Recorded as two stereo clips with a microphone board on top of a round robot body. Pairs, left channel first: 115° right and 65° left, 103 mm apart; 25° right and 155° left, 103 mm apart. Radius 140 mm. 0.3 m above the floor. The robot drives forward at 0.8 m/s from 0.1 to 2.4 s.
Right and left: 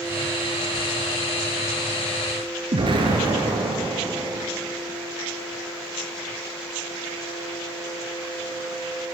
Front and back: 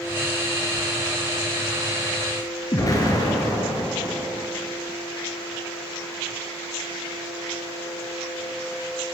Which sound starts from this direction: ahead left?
An explosion, at 2.7 s.